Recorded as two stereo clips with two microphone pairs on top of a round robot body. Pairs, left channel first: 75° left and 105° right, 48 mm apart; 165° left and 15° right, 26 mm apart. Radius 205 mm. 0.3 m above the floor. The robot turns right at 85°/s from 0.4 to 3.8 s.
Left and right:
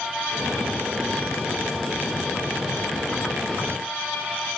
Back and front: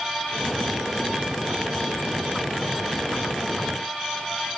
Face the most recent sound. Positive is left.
No sound to turn to.